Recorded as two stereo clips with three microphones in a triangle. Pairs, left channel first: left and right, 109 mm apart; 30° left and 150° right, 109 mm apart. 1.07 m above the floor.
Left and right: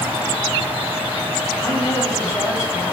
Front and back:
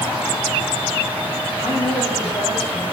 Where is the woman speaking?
20° left, 5 m; by 2.9 s 30° left, 4.5 m.